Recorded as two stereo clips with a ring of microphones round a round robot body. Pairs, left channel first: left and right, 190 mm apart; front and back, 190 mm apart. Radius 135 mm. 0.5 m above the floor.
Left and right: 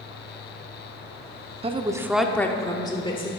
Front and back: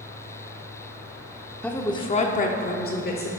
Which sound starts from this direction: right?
A woman speaking, at 1.6 s.